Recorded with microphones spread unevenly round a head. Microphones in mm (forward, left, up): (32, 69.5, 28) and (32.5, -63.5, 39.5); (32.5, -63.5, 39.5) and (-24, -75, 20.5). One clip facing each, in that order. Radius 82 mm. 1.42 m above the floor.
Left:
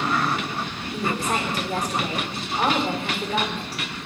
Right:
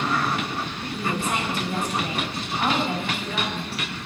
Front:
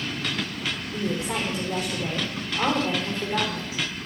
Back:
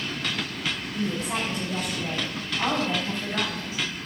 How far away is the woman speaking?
About 4.5 m.